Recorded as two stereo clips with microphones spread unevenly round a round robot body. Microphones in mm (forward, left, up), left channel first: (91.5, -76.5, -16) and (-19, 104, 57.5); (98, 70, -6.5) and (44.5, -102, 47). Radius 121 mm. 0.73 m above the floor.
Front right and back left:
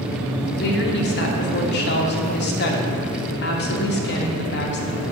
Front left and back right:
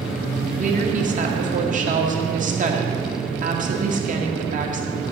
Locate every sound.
0.6 s a woman speaking: 55° right, 1.7 m